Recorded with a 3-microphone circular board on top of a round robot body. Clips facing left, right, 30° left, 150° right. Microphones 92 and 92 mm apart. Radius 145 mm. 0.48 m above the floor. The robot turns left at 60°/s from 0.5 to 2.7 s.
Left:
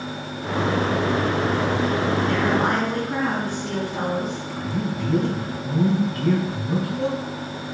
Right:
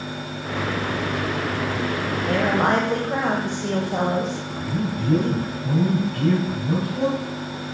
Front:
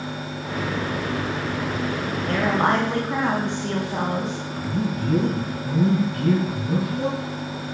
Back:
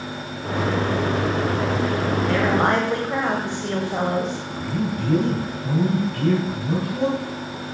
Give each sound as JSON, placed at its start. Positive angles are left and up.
{"t": 2.3, "sound": "a woman speaking", "azimuth_deg": -60, "distance_m": 2.5}
{"t": 4.5, "sound": "a man speaking", "azimuth_deg": -110, "distance_m": 4.5}